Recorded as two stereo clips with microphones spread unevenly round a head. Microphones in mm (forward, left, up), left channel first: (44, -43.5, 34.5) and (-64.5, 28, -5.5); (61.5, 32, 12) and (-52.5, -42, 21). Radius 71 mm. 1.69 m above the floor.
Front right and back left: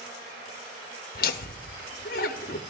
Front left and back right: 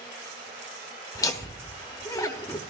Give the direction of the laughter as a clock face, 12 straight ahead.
1 o'clock.